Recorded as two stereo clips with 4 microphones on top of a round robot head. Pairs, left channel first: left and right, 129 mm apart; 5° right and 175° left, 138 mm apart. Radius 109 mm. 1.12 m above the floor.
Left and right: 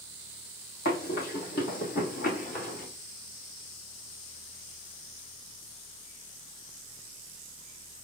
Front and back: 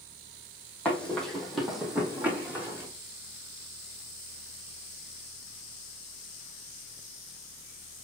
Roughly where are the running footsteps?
Left.